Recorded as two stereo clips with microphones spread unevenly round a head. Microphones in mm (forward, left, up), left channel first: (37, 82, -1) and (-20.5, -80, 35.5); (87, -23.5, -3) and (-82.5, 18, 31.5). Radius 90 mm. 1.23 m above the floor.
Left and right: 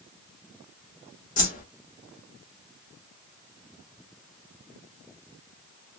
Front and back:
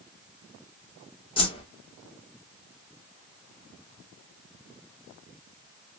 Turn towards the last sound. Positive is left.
turn(degrees=45)